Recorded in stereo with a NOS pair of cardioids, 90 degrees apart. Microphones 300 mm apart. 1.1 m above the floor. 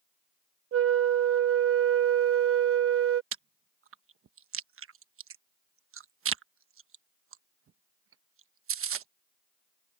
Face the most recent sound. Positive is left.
turn(degrees=-45)